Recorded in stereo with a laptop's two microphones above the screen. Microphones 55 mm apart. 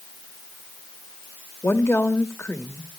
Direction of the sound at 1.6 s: 55° left (ahead or behind).